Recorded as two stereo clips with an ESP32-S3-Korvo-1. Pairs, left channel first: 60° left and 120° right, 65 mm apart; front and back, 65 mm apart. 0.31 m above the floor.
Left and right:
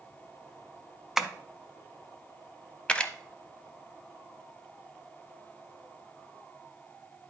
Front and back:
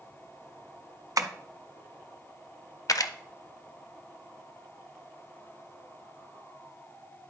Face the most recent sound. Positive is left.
turn(degrees=-15)